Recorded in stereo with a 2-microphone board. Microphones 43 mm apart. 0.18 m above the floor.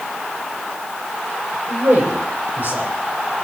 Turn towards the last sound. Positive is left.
turn(degrees=-65)  # may be behind; listen again after turning